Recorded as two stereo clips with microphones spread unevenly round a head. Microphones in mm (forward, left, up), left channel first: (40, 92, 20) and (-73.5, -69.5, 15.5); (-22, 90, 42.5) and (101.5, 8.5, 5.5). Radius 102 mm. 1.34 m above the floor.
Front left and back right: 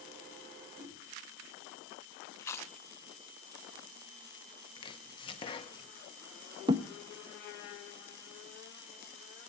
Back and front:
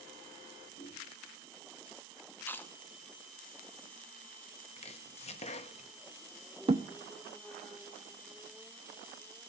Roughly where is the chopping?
Behind left.